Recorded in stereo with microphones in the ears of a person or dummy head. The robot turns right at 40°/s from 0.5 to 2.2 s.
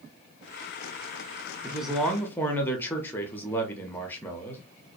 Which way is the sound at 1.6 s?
5° right (ahead or behind).